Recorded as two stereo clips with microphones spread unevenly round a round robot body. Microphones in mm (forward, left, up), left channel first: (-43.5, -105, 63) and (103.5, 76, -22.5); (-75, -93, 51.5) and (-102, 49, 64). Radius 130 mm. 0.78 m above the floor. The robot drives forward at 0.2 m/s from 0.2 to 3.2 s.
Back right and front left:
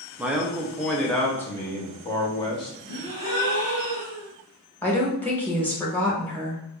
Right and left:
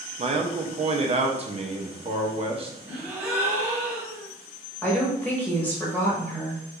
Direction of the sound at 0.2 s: 95° left.